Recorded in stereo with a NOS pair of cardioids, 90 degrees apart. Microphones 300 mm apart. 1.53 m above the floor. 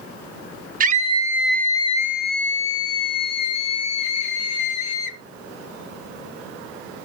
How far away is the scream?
About 0.8 m.